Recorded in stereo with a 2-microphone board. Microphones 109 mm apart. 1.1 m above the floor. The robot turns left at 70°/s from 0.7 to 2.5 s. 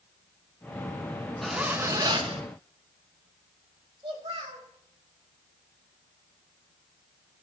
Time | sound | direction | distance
1.4 | a zipper | 5° left | 1.5 m
4.0 | a child speaking | 50° right (ahead or behind) | 4 m